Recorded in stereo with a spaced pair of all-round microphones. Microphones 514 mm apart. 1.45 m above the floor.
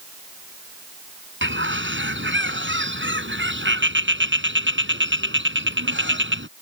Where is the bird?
20° right (ahead or behind).